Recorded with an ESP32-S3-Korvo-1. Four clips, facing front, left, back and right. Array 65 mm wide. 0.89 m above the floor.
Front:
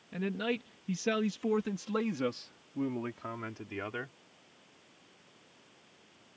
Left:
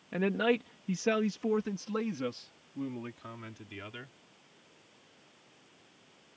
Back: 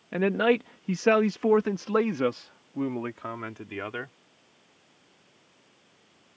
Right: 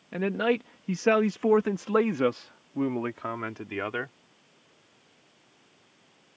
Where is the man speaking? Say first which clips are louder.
Right 3 dB, back 11 dB; straight behind; by 4.2 s 105° right.